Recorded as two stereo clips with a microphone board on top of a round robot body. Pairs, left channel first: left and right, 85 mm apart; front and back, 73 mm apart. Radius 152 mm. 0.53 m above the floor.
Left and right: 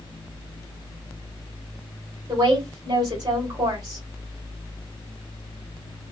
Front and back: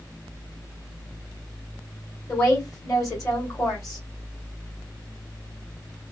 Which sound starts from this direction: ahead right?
A woman speaking, at 2.3 s.